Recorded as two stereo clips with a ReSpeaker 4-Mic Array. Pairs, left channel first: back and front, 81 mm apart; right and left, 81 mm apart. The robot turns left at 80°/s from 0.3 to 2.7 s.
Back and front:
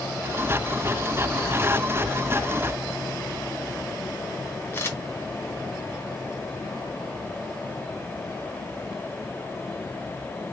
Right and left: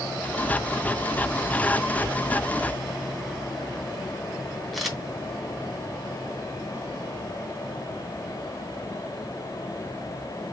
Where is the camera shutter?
Straight behind, 1.0 m.